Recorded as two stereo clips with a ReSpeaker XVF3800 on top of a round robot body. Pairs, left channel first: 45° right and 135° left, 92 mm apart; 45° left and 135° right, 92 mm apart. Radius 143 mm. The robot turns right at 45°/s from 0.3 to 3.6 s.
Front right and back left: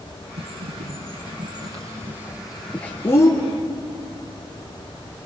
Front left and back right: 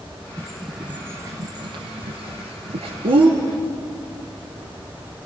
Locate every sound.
0.4 s a bird: 125° left, 2.5 m; by 3.3 s 100° right, 2.5 m